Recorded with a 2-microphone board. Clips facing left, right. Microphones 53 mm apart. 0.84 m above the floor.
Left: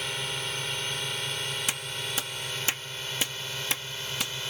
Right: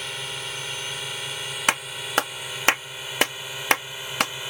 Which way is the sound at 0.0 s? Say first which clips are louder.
Even; centre (ahead or behind).